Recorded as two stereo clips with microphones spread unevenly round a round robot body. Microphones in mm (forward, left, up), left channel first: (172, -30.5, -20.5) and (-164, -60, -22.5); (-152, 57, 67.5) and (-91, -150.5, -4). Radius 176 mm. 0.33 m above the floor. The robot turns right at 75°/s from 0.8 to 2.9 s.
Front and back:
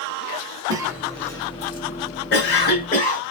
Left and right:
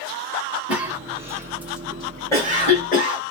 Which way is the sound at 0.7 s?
105° right.